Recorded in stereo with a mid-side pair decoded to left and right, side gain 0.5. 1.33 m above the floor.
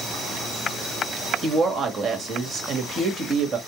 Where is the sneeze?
No sneeze in this recording.